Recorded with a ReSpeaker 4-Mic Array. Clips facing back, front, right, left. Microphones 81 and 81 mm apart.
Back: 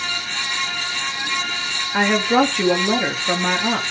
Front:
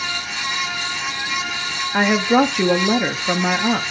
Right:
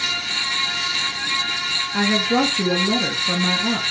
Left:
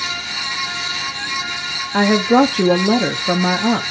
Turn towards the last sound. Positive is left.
turn(degrees=80)